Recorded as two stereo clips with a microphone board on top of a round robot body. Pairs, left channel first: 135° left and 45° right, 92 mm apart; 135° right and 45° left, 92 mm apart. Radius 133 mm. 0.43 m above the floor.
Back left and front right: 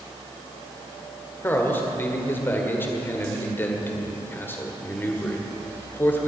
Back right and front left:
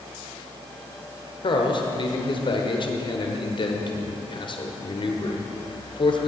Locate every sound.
1.4 s a man speaking: 160° right, 1.7 m